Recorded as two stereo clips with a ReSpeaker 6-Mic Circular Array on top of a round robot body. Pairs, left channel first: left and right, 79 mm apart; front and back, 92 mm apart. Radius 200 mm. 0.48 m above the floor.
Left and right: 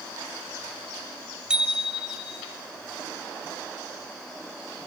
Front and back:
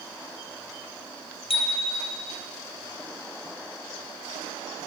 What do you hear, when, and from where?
1.5 s a bicycle bell: 10° right, 5 m